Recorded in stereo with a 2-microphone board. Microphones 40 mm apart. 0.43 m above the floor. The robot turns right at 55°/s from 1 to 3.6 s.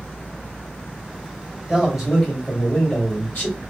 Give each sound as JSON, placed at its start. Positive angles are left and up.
{"t": 1.7, "sound": "a man speaking", "azimuth_deg": -25, "distance_m": 1.9}